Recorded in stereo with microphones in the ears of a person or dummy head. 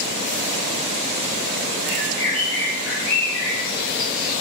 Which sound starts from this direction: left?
A bird, at 1.8 s.